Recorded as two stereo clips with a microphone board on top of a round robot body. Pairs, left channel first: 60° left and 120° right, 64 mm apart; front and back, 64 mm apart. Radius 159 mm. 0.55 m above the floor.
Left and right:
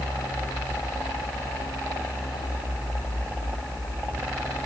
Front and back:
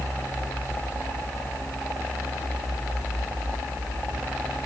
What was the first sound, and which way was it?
Only background noise.